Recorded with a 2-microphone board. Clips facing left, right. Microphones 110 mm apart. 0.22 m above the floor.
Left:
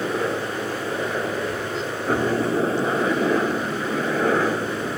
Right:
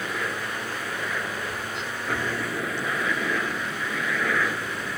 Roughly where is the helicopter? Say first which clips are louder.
Left 7 dB; left.